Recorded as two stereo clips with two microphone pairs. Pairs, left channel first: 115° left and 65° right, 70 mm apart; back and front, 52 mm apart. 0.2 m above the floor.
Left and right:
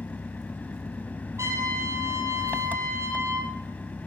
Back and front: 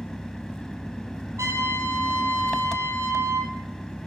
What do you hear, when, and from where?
0.0 s an engine running: 115° left, 1.0 m
1.4 s a trumpet: 15° right, 6 m